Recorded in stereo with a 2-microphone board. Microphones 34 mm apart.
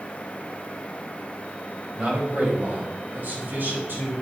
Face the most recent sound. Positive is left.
turn(degrees=-70)  # may be behind; listen again after turning